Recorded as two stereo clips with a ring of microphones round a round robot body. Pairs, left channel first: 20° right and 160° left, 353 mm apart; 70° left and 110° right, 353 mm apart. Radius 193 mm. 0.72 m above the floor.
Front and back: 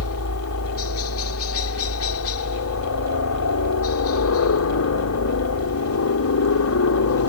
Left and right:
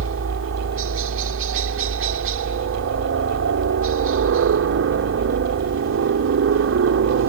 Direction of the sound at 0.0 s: 65° right.